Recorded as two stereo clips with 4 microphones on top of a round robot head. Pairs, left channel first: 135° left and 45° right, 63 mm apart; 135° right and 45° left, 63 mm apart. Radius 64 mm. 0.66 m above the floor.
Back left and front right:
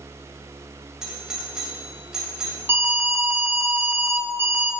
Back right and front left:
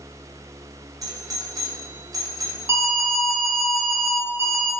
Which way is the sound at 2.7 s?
5° left.